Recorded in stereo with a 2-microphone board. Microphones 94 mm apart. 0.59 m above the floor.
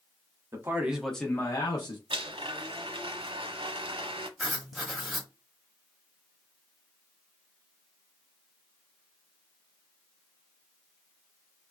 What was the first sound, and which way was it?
A man speaking, 30° right (ahead or behind).